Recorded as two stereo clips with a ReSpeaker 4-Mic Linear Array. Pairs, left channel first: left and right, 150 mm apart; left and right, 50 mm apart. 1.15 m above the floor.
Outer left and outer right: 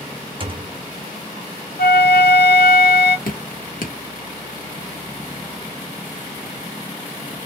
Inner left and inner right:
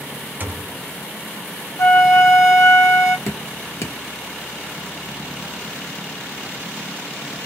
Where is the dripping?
70° left (ahead or behind), 1.1 m.